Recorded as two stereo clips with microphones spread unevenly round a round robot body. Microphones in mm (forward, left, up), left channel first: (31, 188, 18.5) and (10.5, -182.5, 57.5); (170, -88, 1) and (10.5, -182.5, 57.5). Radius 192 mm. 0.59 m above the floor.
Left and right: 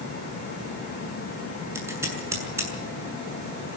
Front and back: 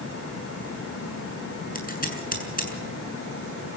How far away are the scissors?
About 7 m.